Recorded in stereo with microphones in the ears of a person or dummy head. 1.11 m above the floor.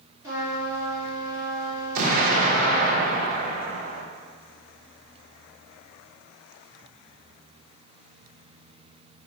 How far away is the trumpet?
About 1.5 m.